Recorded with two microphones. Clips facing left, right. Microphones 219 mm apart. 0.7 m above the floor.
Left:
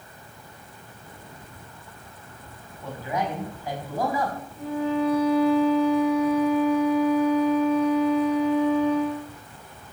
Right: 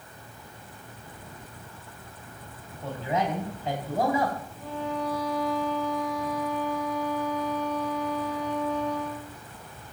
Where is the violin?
65° left (ahead or behind), 5.5 m.